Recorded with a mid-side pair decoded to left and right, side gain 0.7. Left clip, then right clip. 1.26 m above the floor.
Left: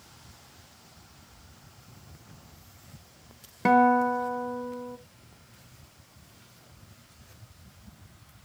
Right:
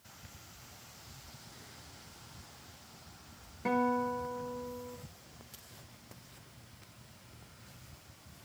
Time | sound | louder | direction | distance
3.6 | a guitar | left 11 dB | 50° left | 1.1 m